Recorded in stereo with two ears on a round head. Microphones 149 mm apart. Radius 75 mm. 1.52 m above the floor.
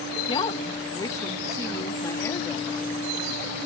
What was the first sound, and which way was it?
A woman speaking, 25° left (ahead or behind).